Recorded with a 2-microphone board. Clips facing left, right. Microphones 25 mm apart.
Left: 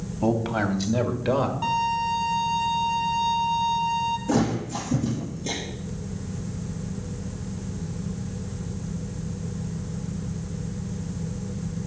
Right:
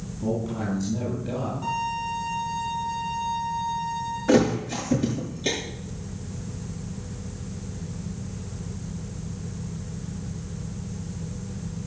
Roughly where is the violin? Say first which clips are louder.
Left 4 dB; left.